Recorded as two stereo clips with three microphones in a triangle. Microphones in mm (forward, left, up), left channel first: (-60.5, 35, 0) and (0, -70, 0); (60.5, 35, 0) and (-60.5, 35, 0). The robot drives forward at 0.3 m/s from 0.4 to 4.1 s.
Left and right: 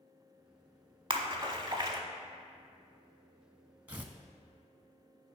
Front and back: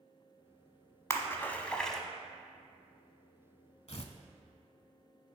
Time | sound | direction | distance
1.1 | a splash | 55° right | 0.8 m
3.9 | tearing paper | 10° left | 0.7 m